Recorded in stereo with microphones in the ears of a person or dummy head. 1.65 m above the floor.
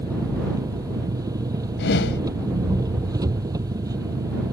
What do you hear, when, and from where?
0.0 s an engine running: 20° right (ahead or behind)
1.8 s a whoosh: 60° left (ahead or behind)